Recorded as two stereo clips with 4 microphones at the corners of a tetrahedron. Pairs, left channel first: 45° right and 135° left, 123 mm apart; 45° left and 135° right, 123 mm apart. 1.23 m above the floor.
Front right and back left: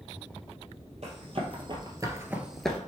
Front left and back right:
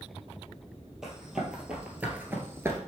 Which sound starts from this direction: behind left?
Running footsteps, at 1.0 s.